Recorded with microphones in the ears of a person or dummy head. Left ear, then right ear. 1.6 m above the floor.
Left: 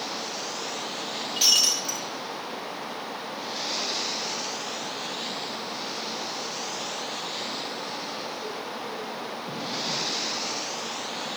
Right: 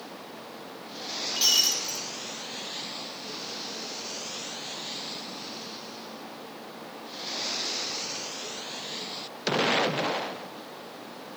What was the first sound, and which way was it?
Breaking glass, centre (ahead or behind).